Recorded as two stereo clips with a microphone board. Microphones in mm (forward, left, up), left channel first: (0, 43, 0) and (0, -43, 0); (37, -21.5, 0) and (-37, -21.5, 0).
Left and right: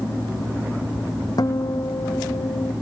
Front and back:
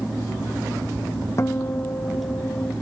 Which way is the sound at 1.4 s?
50° left.